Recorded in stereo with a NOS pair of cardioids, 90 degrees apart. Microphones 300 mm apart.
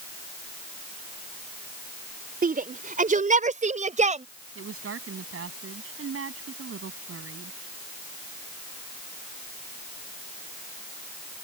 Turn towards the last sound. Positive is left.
turn(degrees=-45)